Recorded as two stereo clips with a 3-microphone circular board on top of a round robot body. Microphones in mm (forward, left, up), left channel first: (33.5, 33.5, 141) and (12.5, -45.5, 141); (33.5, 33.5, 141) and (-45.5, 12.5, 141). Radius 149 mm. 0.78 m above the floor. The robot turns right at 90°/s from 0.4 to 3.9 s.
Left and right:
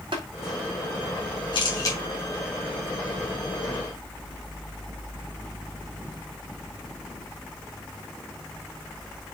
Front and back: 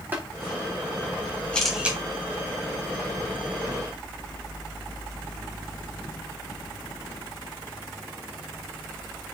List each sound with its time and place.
0.1 s tapping: 95° right, 3.5 m
1.5 s a camera shutter: 90° left, 3.5 m; by 2.0 s 130° left, 3.5 m